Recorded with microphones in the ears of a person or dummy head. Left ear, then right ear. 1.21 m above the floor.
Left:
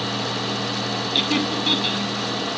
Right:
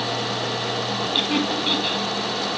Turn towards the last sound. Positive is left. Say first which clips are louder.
# left 1 dB
turn(degrees=5)  # may be behind; listen again after turning